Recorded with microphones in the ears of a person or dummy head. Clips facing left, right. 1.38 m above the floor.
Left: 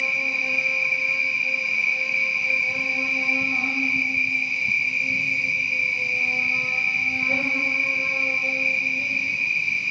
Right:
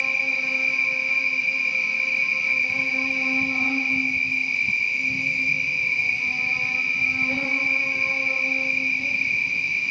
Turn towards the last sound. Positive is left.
turn(degrees=70)  # may be behind; listen again after turning